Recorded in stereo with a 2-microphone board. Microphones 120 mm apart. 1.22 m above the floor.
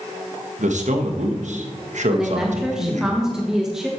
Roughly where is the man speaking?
Right.